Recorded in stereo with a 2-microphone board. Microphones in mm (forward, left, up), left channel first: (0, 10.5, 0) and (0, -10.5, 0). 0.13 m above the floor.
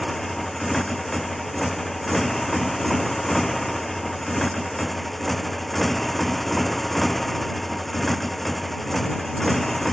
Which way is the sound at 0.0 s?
10° left (ahead or behind).